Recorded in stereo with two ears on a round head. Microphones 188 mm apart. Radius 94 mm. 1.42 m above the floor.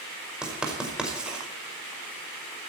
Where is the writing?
5° right (ahead or behind), 5 m.